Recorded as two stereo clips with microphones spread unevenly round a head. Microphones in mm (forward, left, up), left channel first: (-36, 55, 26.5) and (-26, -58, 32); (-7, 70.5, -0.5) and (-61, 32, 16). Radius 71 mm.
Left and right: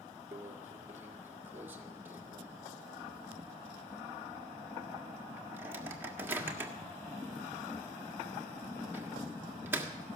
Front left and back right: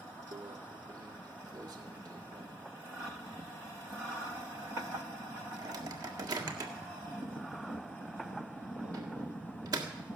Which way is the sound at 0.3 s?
155° right.